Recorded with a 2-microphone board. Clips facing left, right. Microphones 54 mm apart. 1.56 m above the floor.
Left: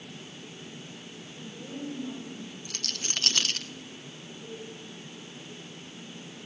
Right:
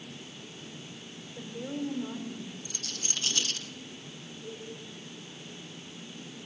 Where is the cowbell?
15° left (ahead or behind), 8.5 m.